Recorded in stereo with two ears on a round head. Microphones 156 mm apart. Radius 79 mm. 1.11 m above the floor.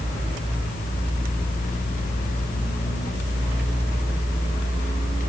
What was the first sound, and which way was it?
Only background noise.